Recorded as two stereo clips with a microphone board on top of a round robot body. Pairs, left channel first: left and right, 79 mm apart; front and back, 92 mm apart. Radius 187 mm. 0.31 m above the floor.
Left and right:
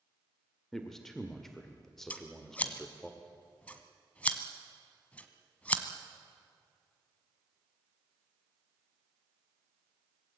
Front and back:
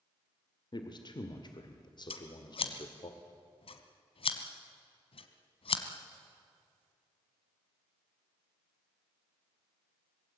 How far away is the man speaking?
About 2 m.